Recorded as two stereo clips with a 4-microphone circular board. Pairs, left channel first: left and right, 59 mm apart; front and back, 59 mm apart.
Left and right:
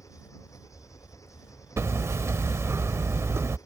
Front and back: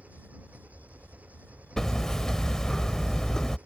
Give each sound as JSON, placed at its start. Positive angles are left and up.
{"t": 0.0, "sound": "an engine running", "azimuth_deg": 115}
{"t": 1.8, "sound": "hammering", "azimuth_deg": -80}